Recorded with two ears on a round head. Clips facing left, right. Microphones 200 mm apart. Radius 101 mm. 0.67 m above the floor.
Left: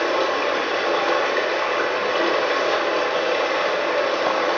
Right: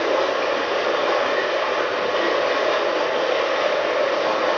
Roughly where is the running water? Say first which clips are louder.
Right 1 dB; left.